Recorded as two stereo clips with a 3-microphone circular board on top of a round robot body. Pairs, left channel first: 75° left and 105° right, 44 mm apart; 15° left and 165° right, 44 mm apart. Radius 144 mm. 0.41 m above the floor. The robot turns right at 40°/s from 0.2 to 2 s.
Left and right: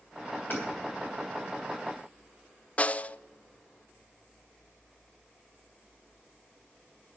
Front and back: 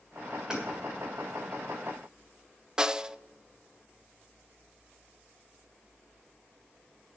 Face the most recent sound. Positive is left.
turn(degrees=125)